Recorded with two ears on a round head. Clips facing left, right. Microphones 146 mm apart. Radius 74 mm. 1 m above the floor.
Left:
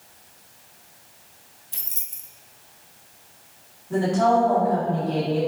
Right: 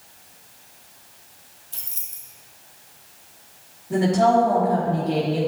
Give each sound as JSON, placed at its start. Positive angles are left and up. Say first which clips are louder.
{"t": 1.7, "sound": "keys jangling", "louder": "even", "side_deg": 20, "distance_m": 0.8}
{"t": 3.9, "sound": "a woman speaking", "louder": "right 2 dB", "side_deg": -20, "distance_m": 2.0}